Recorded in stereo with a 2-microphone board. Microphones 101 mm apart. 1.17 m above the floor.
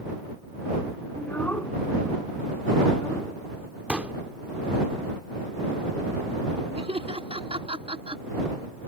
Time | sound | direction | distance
1.1 | a child speaking | 15° left (ahead or behind) | ?
3.9 | a pop | 15° right (ahead or behind) | ?
6.8 | laughter | 80° right | ?